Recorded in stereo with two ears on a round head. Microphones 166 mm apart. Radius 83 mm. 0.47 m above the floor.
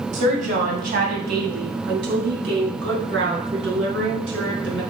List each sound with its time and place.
0.1 s a woman speaking: 40° right (ahead or behind), 2.5 m; by 4.8 s 80° right, 4 m